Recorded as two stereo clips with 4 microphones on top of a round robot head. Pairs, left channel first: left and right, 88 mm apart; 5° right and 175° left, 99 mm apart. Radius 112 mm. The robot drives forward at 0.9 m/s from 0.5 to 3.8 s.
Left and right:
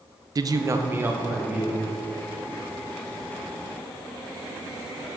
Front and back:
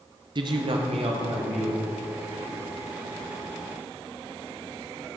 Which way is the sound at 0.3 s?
140° right.